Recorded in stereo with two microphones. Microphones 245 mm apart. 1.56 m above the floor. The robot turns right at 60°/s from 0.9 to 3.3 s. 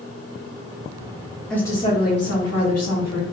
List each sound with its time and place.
1.5 s a woman speaking: straight ahead, 1.6 m; by 3.2 s 105° left, 1.6 m